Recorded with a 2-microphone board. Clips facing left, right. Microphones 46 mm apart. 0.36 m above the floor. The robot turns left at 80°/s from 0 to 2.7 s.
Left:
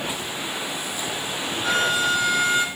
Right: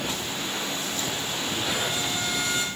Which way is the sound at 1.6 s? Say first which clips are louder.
Left 11 dB; 115° left.